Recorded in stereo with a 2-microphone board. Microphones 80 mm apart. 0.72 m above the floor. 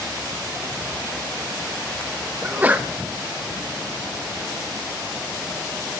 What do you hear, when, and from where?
2.4 s a sneeze: 20° right (ahead or behind), 0.5 m